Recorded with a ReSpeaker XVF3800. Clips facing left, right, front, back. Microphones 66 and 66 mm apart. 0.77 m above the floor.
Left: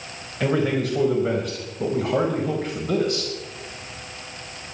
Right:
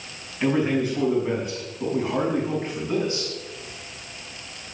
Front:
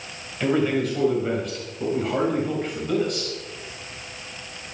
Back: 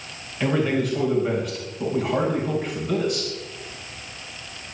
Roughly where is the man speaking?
Left.